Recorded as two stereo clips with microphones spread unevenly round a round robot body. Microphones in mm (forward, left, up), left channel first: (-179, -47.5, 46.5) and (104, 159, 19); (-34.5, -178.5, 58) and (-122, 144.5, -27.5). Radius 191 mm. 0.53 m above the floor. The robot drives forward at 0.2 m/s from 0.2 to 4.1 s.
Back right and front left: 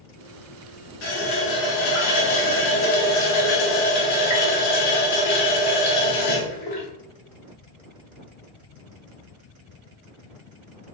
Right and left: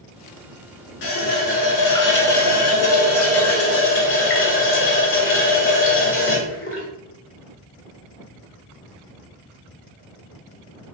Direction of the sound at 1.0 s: 100° right.